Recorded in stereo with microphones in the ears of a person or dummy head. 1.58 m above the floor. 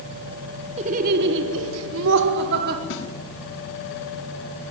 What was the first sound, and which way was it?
Laughter, 35° right (ahead or behind).